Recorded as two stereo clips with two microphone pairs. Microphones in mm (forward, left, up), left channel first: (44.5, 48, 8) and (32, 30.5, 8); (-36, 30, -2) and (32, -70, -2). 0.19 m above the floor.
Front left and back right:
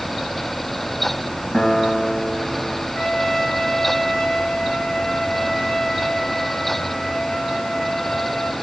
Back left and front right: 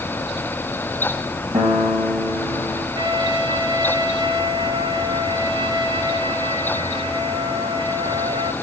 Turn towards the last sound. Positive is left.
turn(degrees=-25)